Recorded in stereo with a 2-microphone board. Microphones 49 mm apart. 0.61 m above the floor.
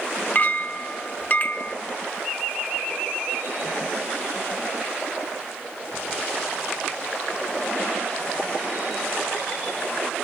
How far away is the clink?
About 0.6 m.